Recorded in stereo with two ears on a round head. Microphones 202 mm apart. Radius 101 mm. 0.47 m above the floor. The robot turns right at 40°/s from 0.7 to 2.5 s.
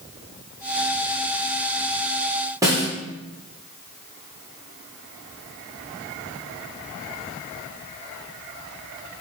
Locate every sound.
2.6 s a snare drum: 15° right (ahead or behind), 0.7 m